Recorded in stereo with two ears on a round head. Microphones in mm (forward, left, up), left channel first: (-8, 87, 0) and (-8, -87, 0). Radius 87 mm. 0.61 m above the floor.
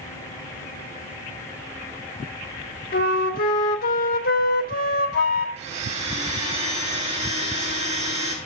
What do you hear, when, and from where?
2.9 s a flute: 50° left (ahead or behind), 1.0 m
5.6 s a blender: 35° right (ahead or behind), 3 m